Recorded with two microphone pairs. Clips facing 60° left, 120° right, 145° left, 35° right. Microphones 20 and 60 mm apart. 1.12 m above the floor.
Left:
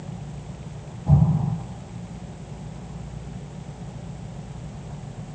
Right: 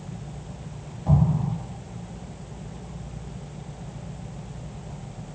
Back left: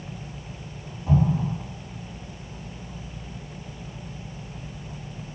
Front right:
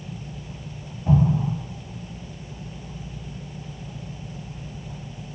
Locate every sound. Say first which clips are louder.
1.1 s an explosion: left 2 dB, front right 2 dB; 85° right, 1.4 m